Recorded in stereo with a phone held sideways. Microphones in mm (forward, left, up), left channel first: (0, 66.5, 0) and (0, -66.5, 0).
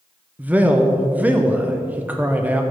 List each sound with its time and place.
0.4 s a man speaking: 10° right (ahead or behind), 0.9 m